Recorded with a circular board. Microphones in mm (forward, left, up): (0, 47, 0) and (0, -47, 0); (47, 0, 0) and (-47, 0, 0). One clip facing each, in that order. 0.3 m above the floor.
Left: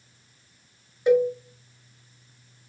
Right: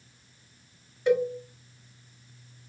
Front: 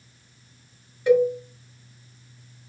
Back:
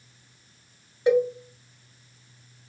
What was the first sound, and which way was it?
A cowbell, 145° left.